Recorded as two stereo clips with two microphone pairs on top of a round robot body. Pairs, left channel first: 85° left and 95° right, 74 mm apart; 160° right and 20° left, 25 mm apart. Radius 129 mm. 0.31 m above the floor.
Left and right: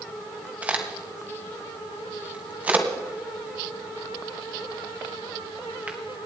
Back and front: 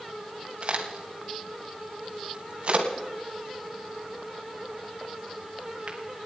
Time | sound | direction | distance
0.6 | a crack | 25° right | 2.0 m